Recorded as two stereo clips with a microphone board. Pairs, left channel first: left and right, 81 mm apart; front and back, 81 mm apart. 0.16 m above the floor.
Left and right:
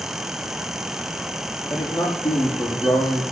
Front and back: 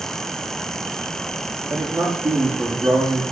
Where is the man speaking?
120° left, 6 m.